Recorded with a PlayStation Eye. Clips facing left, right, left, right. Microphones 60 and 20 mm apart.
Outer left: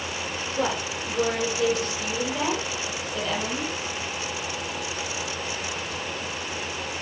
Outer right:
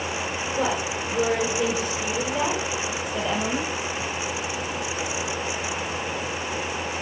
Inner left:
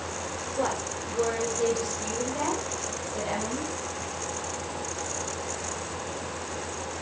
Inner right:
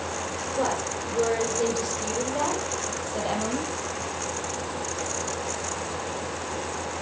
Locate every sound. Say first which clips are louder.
0.6 s a woman speaking: outer right 1 dB, inner right 2 dB; 5° right (ahead or behind), 6 m; by 3.7 s 20° right (ahead or behind), 4.5 m